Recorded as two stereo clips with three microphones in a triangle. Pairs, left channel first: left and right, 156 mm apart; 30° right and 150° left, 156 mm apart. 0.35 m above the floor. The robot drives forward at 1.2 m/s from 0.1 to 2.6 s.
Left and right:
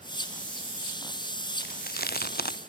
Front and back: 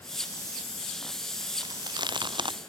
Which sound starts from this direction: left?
Chewing, at 1.6 s.